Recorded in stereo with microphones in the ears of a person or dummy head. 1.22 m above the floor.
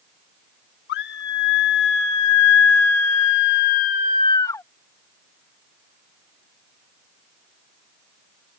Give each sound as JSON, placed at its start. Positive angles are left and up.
{"t": 0.9, "sound": "a scream", "side_deg": 65}